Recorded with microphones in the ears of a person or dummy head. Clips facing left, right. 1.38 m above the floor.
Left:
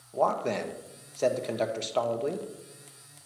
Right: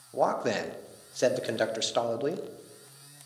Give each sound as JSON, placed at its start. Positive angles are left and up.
{"t": 0.1, "sound": "a man speaking", "side_deg": -10, "distance_m": 0.5}